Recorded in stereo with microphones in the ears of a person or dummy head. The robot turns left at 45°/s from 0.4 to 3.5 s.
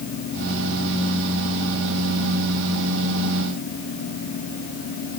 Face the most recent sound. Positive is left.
No sound to turn to.